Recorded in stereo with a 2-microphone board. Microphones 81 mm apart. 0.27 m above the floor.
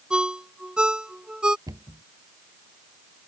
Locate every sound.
0.1 s a ringtone: 10° right (ahead or behind)
1.7 s a cupboard door: 50° right (ahead or behind)